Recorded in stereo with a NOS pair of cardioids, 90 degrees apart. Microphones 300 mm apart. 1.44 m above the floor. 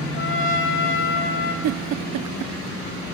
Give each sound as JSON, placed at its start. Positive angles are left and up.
{"t": 0.1, "sound": "a trumpet", "azimuth_deg": 40, "distance_m": 3.0}
{"t": 1.6, "sound": "a giggle", "azimuth_deg": -60, "distance_m": 0.7}